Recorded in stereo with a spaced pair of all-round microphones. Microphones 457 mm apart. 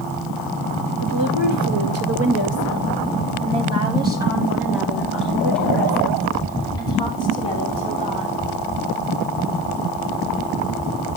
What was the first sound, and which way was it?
A woman speaking, 45° right (ahead or behind).